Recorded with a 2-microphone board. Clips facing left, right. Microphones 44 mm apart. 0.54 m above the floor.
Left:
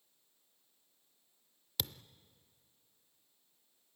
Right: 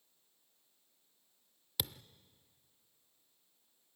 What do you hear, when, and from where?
1.8 s a thud: 10° right (ahead or behind), 0.5 m